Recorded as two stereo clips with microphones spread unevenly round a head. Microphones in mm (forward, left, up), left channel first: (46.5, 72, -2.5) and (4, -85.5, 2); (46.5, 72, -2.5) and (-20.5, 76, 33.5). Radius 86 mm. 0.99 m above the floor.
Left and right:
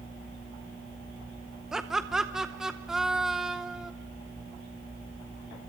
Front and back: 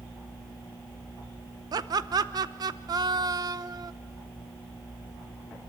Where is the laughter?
170° left, 0.7 m.